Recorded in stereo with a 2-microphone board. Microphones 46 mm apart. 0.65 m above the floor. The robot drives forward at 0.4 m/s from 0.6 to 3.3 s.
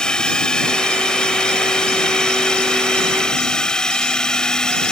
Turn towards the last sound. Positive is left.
turn(degrees=15)  # may be behind; listen again after turning